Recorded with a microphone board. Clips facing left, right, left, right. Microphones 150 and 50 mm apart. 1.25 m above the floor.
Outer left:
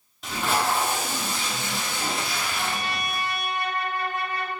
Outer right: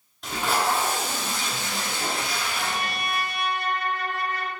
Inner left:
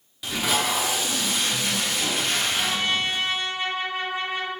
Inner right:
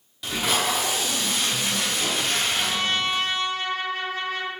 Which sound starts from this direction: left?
A trumpet, at 2.5 s.